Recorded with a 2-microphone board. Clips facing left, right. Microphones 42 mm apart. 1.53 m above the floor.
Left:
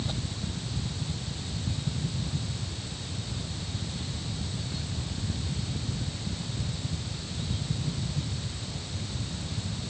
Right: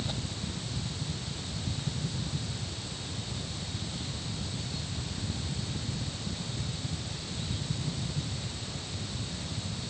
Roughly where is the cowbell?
No cowbell in this recording.